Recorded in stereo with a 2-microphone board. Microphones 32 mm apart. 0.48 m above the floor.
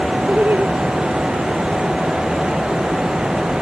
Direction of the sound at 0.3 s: 80° right.